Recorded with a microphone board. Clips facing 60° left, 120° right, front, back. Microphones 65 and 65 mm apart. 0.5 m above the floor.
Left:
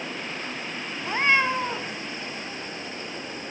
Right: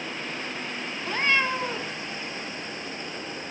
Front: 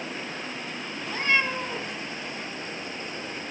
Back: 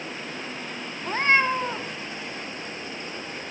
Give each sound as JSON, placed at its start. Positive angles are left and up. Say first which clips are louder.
{"t": 1.0, "sound": "a cat meowing", "louder": "left 3 dB, back 4 dB", "azimuth_deg": 130, "distance_m": 1.0}